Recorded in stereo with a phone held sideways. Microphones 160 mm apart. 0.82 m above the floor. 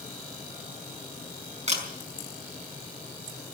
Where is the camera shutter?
45° right (ahead or behind), 5 m.